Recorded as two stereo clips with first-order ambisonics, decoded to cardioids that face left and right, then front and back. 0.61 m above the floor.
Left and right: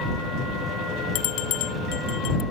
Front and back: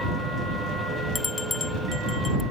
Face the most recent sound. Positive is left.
turn(degrees=70)